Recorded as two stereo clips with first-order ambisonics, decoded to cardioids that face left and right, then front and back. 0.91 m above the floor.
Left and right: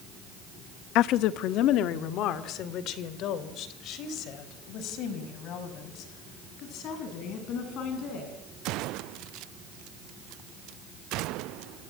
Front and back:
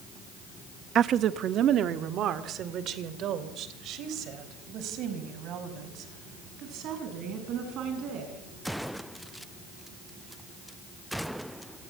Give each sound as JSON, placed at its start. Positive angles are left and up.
{"t": 0.9, "sound": "a woman speaking", "azimuth_deg": 125, "distance_m": 0.8}